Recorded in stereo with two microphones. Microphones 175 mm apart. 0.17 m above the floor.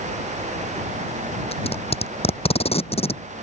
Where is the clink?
I don't hear a clink.